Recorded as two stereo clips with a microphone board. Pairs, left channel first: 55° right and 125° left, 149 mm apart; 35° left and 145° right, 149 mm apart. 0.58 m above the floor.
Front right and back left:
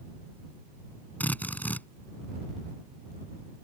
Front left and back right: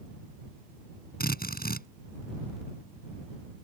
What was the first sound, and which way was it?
A drill, 25° left.